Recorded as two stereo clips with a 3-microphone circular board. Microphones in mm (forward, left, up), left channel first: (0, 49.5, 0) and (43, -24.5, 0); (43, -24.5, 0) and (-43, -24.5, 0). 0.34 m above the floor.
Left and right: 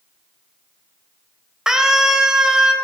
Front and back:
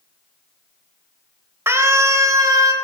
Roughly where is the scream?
Behind right.